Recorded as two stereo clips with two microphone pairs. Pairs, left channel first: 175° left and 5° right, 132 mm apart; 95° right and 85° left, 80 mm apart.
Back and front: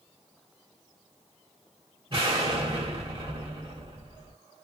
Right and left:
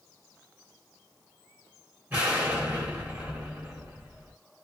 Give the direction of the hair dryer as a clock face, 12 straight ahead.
No hair dryer in this recording.